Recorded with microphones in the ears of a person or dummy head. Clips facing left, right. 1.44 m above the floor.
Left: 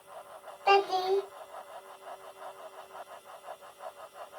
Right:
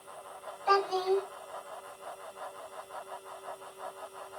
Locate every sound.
0.7 s a child speaking: 75° left (ahead or behind), 3 m